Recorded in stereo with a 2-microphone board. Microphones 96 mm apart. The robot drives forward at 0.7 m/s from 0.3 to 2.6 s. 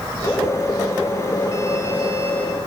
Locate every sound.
Only background noise.